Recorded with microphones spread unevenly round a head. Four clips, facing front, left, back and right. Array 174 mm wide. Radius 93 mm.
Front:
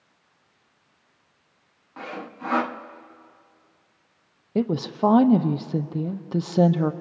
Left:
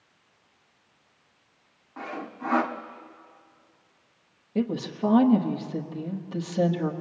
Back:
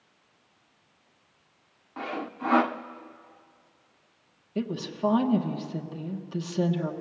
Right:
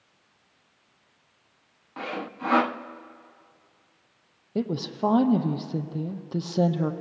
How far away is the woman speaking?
About 1.1 m.